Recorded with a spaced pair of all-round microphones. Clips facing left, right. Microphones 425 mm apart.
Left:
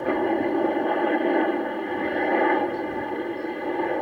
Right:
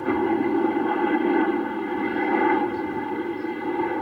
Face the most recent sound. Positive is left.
turn(degrees=-20)  # may be behind; listen again after turning